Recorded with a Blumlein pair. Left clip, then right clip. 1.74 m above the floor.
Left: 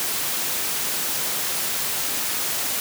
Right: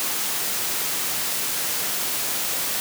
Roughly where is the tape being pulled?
No tape being pulled in this recording.